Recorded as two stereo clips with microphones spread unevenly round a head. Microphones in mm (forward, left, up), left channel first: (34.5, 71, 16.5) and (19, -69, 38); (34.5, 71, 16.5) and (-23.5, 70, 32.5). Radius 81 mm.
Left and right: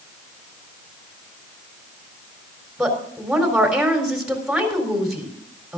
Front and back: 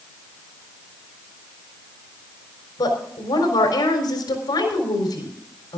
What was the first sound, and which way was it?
A woman speaking, 10° right.